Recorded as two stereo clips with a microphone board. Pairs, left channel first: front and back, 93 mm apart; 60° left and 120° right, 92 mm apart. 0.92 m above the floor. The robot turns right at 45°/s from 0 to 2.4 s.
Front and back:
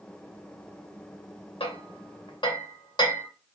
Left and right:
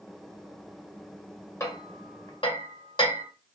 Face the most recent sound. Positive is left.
turn(degrees=35)